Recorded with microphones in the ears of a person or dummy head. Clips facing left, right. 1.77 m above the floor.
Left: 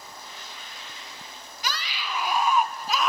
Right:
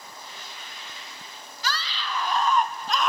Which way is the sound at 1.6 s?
15° left (ahead or behind).